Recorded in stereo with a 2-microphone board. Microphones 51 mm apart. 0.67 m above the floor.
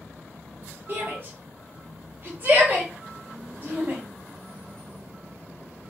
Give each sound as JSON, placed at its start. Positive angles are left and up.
{"t": 0.9, "sound": "a shout", "side_deg": -40, "distance_m": 1.1}